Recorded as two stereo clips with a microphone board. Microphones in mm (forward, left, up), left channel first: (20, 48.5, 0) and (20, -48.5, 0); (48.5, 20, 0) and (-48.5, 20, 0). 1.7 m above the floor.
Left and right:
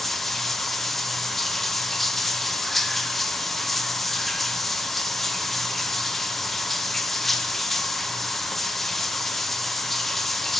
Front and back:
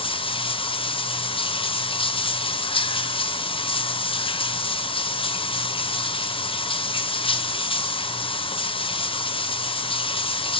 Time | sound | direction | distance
0.0 | running water | 5° left | 0.8 m